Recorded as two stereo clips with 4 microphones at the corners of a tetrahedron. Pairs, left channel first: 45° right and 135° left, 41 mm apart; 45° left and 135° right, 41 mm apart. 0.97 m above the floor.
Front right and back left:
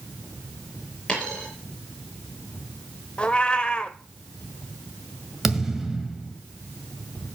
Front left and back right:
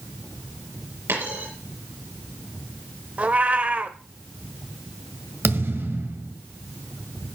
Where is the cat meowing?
100° right, 0.9 m.